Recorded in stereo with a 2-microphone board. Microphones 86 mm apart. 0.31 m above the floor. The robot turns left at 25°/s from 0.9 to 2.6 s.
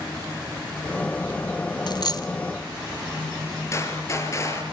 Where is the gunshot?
35° left (ahead or behind), 5 m.